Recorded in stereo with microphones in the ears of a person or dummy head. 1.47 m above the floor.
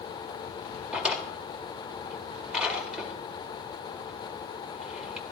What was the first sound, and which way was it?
A drawer, 5° right (ahead or behind).